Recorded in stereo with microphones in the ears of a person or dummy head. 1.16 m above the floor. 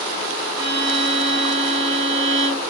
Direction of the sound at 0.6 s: 25° right (ahead or behind).